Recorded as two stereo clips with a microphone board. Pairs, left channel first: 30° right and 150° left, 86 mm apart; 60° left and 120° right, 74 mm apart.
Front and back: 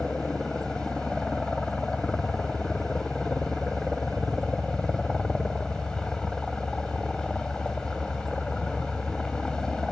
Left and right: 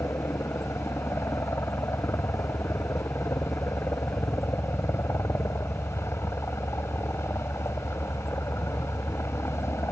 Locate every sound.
0.0 s a helicopter: 45° left